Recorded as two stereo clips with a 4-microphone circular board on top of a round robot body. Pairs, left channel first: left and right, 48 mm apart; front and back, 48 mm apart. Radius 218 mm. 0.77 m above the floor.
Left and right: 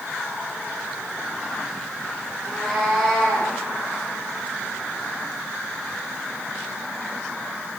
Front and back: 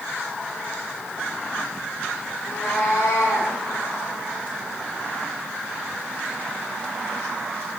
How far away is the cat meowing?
About 6 m.